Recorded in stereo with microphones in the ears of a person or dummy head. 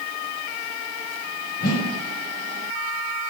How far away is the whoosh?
About 1.8 m.